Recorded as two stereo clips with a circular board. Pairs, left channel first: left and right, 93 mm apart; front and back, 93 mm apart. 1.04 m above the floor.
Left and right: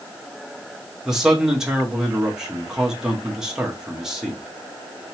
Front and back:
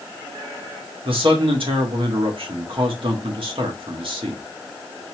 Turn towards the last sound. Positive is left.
turn(degrees=-175)